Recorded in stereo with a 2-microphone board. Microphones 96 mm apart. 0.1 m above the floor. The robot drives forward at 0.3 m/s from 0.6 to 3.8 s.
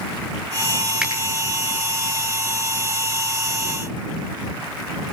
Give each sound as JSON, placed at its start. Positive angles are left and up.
{"t": 1.0, "sound": "a finger snap", "side_deg": -10, "distance_m": 6.5}